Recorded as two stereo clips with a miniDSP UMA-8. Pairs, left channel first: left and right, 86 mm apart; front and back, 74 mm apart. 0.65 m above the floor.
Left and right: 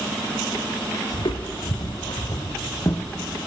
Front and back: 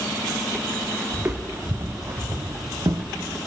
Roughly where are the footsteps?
Left.